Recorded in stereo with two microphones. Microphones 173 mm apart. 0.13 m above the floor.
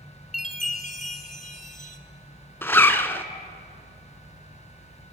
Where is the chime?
50° left (ahead or behind), 0.9 m.